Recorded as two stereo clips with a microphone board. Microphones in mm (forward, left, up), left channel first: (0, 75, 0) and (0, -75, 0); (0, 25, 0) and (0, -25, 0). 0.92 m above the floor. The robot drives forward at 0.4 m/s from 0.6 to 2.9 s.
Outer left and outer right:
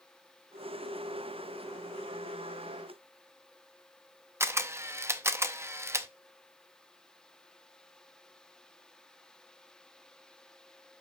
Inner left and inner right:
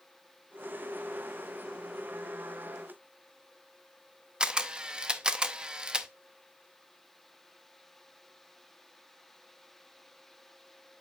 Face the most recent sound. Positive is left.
turn(degrees=-15)  # may be behind; listen again after turning